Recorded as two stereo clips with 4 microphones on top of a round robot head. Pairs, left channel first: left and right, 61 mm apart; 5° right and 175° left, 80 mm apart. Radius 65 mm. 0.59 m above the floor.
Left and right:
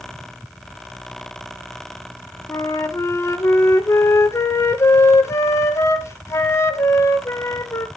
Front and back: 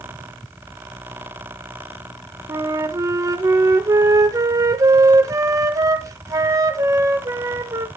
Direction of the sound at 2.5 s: 130° left.